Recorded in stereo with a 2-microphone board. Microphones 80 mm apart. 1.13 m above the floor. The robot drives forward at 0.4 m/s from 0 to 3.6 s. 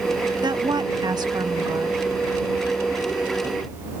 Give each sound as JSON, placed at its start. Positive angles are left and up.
{"t": 0.4, "sound": "a woman speaking", "side_deg": -75}